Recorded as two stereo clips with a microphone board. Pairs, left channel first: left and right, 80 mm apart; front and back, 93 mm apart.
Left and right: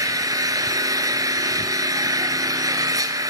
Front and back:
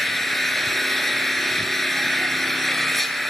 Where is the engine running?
90° right, 1.1 m.